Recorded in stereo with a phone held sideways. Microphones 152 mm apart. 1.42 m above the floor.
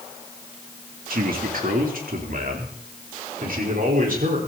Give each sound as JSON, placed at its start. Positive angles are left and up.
{"t": 1.1, "sound": "a man speaking", "side_deg": -70, "distance_m": 3.0}